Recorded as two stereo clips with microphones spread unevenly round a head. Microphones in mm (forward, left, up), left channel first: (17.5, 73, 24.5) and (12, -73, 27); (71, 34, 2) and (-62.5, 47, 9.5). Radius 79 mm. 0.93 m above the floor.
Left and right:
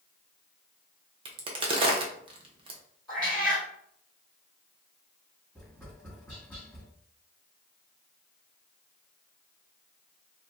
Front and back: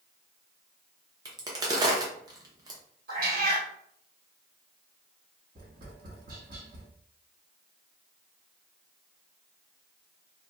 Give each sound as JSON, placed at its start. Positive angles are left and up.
{"t": 1.2, "sound": "a crack", "azimuth_deg": -130, "distance_m": 0.7}
{"t": 3.1, "sound": "a cat meowing", "azimuth_deg": 170, "distance_m": 1.3}
{"t": 5.5, "sound": "tapping", "azimuth_deg": 170, "distance_m": 1.6}